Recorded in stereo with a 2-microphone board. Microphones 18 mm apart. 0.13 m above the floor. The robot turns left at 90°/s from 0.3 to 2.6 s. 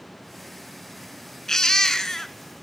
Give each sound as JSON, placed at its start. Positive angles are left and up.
{"t": 1.5, "sound": "a baby crying", "azimuth_deg": 115, "distance_m": 0.7}